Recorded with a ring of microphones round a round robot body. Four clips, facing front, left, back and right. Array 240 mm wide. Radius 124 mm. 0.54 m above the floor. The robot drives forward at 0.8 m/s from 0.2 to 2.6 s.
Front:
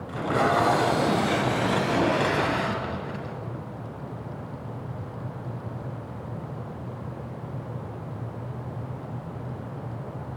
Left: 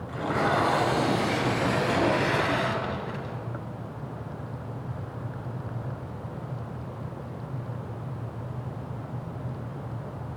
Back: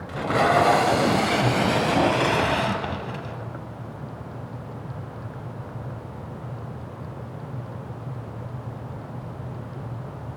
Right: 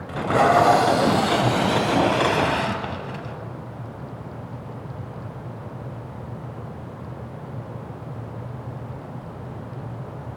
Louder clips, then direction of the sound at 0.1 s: Right 8 dB, back 3 dB; 100° right.